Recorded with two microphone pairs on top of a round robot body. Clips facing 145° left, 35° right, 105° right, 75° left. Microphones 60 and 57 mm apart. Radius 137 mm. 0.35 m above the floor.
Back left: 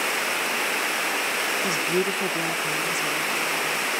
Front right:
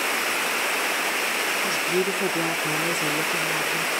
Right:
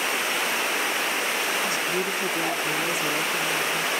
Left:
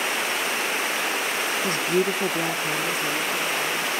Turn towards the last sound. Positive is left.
turn(degrees=-40)